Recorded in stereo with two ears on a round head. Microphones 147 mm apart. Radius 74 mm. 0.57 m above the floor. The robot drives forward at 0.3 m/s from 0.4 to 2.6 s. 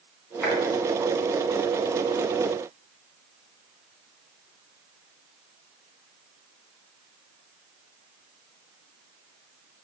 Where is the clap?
Centre (ahead or behind), 3.5 m.